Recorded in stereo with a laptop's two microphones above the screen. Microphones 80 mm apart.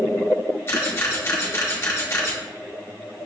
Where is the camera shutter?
30° left (ahead or behind), 0.8 m.